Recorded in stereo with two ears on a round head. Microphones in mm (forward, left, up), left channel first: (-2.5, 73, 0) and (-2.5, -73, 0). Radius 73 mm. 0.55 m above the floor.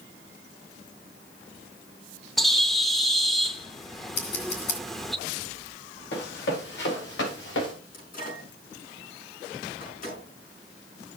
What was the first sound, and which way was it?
A bird, centre (ahead or behind).